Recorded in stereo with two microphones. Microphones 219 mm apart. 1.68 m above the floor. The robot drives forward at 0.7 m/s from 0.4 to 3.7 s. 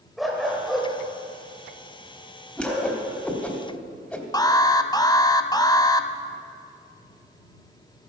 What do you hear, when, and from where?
0.2 s a dog barking: centre (ahead or behind), 1.8 m
2.6 s a whoosh: 5° left (ahead or behind), 1.5 m
4.3 s an alarm: 20° left (ahead or behind), 0.5 m